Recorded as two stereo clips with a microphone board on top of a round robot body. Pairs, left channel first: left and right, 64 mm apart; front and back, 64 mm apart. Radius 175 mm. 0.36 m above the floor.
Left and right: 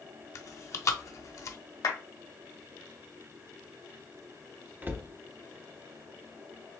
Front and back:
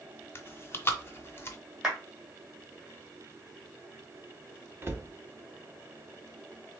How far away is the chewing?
About 0.7 m.